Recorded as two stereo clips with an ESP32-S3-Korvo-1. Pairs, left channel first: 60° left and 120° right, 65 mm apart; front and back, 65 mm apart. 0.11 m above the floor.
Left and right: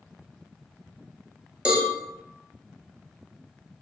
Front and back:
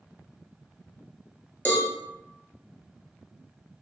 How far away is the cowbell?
About 0.9 m.